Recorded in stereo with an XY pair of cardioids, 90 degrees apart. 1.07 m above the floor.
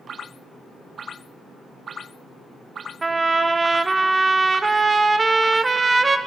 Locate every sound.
3.0 s a trumpet: 30° right, 1.0 m